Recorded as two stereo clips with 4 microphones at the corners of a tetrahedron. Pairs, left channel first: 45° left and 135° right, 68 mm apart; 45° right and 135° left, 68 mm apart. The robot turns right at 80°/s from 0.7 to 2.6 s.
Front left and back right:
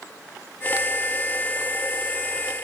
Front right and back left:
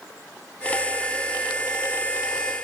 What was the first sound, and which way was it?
Only background noise.